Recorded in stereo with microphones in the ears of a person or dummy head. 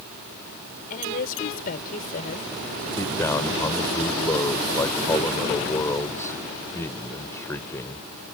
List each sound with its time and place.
0.9 s a woman speaking: 45° left (ahead or behind)
3.0 s a man speaking: 20° left (ahead or behind)